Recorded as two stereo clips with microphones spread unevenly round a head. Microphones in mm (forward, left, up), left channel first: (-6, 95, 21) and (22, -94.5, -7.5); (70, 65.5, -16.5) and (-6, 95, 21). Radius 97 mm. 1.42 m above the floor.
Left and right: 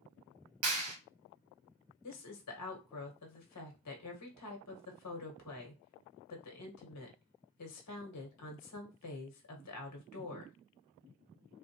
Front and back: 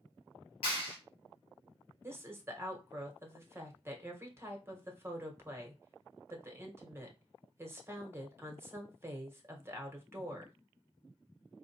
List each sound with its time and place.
0.6 s a clap: 70° right, 1.3 m
2.0 s a woman speaking: 95° left, 1.4 m